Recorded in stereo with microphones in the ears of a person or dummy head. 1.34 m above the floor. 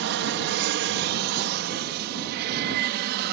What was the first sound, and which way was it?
An aircraft, 60° right (ahead or behind).